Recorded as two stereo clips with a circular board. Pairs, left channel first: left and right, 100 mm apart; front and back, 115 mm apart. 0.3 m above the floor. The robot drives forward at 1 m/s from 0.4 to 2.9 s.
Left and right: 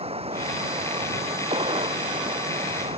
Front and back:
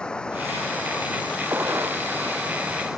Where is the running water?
85° right; by 3.0 s 90° right.